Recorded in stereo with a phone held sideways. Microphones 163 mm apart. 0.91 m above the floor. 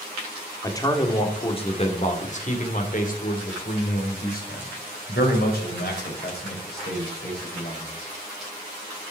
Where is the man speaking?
20° left (ahead or behind), 1.9 m; by 7.9 s 85° left, 4.5 m.